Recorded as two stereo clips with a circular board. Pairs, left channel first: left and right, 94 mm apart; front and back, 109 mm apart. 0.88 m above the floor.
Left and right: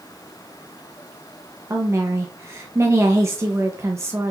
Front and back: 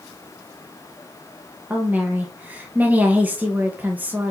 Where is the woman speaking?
120° right, 0.7 m.